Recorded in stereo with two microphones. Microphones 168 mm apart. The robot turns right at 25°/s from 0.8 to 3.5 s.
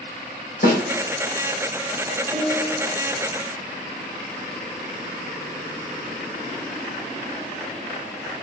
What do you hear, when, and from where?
0.6 s a snare drum: 60° left (ahead or behind), 4 m
2.3 s a piano: centre (ahead or behind), 2.5 m; by 2.8 s 10° right (ahead or behind), 2.5 m